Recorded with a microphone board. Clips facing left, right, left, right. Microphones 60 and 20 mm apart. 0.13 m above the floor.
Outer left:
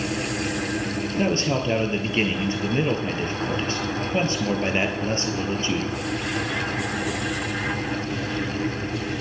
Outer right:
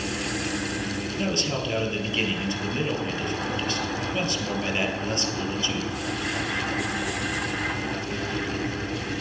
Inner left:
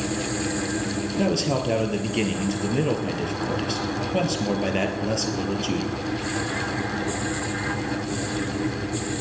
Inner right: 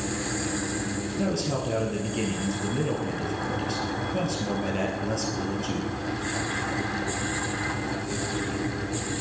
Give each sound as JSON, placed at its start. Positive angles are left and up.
{"t": 1.1, "sound": "a man speaking", "side_deg": 30, "distance_m": 2.5}